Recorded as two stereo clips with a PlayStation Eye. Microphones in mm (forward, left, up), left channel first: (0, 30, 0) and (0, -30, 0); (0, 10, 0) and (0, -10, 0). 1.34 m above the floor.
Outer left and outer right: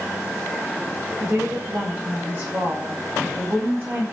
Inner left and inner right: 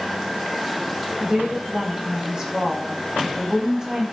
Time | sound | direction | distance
1.2 | a woman speaking | 40° right (ahead or behind) | 10 m